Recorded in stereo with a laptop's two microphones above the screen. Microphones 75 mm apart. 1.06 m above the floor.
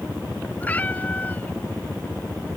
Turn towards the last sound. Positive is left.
turn(degrees=20)  # may be behind; listen again after turning